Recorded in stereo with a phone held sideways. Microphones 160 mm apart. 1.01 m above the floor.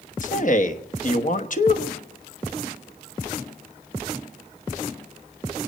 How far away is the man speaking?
About 1.1 m.